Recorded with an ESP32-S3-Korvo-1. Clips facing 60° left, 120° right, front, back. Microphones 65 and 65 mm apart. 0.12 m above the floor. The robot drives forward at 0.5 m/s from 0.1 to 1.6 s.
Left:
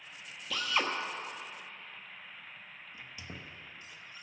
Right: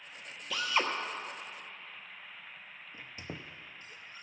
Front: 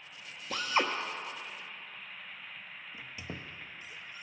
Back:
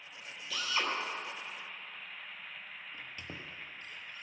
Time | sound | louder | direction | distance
0.5 | a drill | right 1 dB, front 4 dB | 35° right | 1.3 m
2.9 | a squeak | right 3 dB, front 3 dB | 80° right | 0.7 m